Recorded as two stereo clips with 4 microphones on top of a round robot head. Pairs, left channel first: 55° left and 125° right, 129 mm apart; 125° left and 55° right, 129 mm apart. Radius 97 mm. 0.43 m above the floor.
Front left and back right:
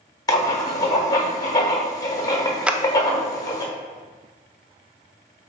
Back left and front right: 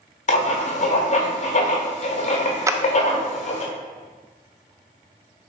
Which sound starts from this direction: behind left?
Writing, at 0.3 s.